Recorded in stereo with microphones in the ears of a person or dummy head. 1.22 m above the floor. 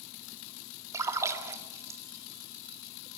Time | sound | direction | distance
0.9 | a splash | 10° right (ahead or behind) | 2 m